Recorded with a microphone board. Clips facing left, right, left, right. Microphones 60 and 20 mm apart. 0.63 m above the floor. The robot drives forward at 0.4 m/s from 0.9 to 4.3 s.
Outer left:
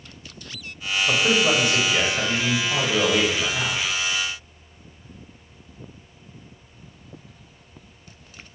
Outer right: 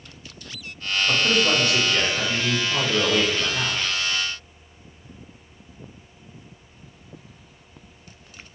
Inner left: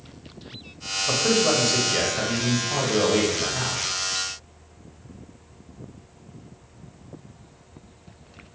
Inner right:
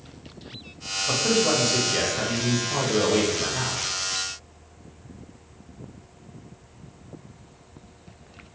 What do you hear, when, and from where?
1.1 s a man speaking: 15° left (ahead or behind), 2 m; by 3.8 s 10° left (ahead or behind), 3 m